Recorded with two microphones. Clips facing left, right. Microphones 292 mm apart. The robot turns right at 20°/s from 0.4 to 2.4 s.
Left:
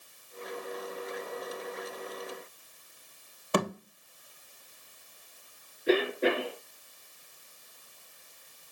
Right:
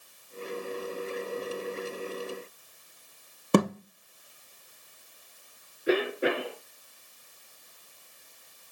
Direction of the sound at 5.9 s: 10° right (ahead or behind).